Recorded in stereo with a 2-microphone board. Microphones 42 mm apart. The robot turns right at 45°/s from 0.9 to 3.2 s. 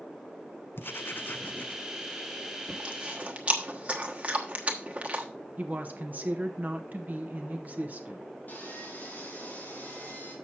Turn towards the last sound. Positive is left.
turn(degrees=45)  # may be behind; listen again after turning